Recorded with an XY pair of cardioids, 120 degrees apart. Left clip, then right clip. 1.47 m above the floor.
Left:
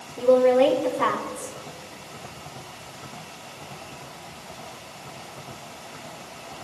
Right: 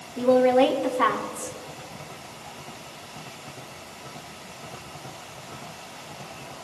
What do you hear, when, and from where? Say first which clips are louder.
0.2 s a woman speaking: left 1 dB; 45° right, 4 m